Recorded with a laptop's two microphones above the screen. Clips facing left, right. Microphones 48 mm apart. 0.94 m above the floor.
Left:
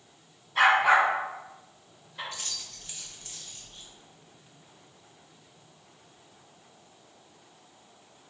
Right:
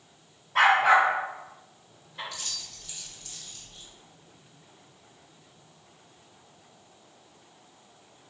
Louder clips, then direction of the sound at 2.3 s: Even; 35° left (ahead or behind).